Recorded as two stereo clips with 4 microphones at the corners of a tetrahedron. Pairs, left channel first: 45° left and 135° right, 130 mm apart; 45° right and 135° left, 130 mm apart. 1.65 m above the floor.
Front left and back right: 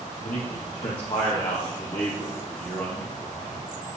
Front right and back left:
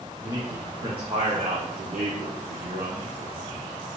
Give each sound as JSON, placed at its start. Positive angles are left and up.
{"t": 0.2, "sound": "a man speaking", "azimuth_deg": 70, "distance_m": 1.4}